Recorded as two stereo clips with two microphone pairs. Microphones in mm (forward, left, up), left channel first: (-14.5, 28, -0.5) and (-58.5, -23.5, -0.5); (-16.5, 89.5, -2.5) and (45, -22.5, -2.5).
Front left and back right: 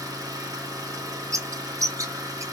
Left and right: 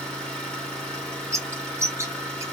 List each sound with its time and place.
0.0 s an engine running: 160° right, 1.0 m
1.3 s a bird: 125° right, 0.5 m